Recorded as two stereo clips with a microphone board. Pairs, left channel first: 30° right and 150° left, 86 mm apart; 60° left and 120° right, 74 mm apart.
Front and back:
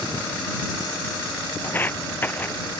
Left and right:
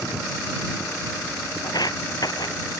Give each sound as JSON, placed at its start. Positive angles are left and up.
{"t": 1.6, "sound": "footsteps", "azimuth_deg": 35}